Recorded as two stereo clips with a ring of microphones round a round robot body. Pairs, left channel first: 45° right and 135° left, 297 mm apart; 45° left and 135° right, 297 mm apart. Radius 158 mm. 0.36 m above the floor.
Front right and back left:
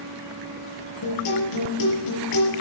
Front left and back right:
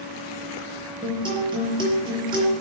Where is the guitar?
60° right, 5.5 m.